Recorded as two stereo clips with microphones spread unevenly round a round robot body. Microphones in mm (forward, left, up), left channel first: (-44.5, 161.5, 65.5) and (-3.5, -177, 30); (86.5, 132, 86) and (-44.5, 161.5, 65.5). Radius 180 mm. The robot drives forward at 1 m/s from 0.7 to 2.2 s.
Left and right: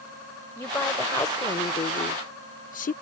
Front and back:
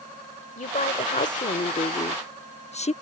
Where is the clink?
I don't hear a clink.